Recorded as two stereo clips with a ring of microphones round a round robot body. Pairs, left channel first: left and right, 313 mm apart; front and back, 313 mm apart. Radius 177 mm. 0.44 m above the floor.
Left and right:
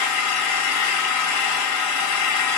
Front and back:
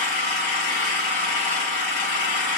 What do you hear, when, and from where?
0.0 s an engine running: 55° left, 2.5 m